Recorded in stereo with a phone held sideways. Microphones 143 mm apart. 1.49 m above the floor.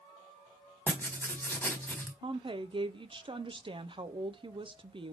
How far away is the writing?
About 1.5 m.